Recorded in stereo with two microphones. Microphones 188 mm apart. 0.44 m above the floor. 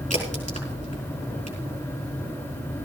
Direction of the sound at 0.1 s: 35° left (ahead or behind).